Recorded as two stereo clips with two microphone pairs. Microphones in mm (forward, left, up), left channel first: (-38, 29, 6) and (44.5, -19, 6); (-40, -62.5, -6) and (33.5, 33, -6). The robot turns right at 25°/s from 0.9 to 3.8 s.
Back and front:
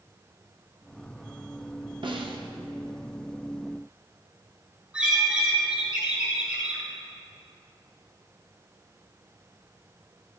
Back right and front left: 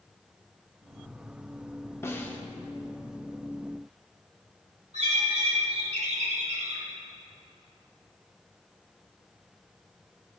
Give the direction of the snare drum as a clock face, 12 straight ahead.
2 o'clock.